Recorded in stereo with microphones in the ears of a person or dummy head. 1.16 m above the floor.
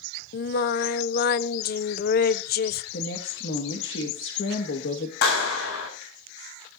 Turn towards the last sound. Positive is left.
turn(degrees=85)